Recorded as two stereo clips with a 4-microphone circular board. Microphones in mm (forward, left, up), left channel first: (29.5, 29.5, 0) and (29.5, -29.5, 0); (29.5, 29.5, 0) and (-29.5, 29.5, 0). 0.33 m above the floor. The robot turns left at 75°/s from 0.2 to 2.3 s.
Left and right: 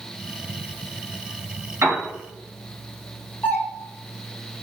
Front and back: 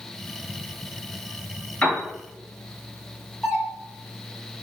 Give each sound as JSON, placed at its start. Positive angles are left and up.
{"t": 1.8, "sound": "a piano", "azimuth_deg": -60, "distance_m": 1.5}
{"t": 3.4, "sound": "a doorbell", "azimuth_deg": 70, "distance_m": 1.5}